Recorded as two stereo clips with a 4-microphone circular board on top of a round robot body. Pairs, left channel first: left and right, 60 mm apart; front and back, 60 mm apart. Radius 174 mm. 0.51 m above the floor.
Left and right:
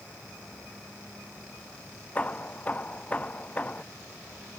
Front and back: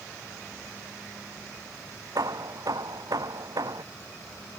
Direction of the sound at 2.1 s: 160° left.